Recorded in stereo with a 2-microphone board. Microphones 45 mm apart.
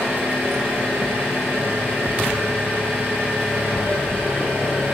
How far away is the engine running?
About 5 m.